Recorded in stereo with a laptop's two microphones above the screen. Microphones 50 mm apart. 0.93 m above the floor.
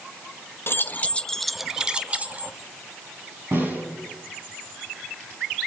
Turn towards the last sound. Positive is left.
turn(degrees=-50)  # may be behind; listen again after turning